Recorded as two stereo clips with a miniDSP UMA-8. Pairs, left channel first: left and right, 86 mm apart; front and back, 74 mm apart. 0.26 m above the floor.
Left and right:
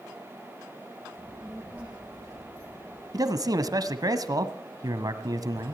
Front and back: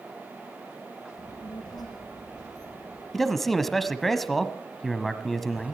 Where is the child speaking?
5° right, 9.5 m.